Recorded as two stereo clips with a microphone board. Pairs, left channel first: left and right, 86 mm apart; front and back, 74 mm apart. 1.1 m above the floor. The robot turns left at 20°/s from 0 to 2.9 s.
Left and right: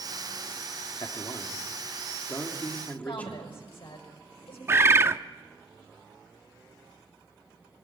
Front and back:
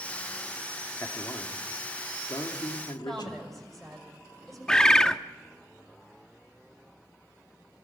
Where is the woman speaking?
85° left, 7 m.